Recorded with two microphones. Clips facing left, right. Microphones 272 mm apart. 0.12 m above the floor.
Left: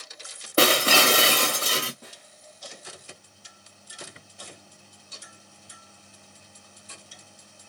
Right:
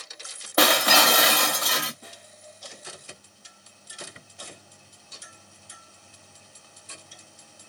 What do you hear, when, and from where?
0.6 s breaking glass: 30° left (ahead or behind), 0.9 m
2.0 s a snare drum: 65° left (ahead or behind), 3 m